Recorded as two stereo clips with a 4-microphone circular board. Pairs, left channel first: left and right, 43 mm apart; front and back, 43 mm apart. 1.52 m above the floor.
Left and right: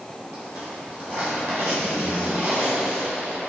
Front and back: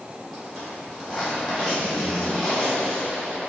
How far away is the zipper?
About 1.4 m.